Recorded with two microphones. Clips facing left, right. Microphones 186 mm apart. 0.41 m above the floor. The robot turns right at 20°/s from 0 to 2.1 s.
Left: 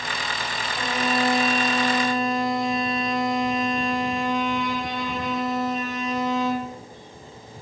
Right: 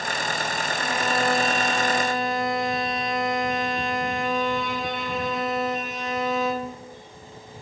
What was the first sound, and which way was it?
A violin, 20° left (ahead or behind).